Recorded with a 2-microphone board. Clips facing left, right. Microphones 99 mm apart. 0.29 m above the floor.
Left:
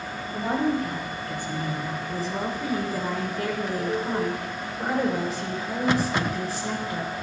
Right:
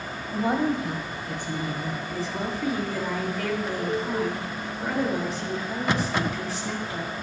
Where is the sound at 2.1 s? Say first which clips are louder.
Left 2 dB; 35° left (ahead or behind), 3 m.